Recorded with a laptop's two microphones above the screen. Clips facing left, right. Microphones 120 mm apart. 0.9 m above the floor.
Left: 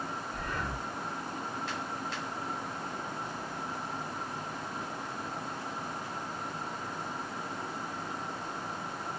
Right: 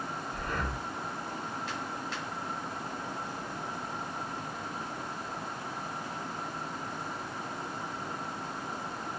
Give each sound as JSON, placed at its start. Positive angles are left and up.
{"t": 0.3, "sound": "breathing", "side_deg": -50, "distance_m": 1.6}